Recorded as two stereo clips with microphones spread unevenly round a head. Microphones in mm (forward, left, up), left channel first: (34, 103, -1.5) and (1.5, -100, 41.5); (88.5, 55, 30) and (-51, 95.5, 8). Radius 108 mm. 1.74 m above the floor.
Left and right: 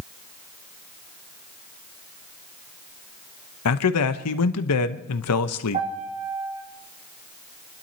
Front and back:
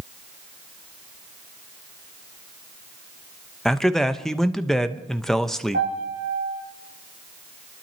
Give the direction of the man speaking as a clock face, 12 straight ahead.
10 o'clock.